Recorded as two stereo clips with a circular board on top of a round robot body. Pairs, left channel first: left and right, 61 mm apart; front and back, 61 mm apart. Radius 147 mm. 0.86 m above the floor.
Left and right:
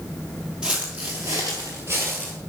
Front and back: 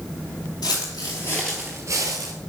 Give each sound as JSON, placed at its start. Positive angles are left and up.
{"t": 0.6, "sound": "footsteps", "azimuth_deg": -10, "distance_m": 1.3}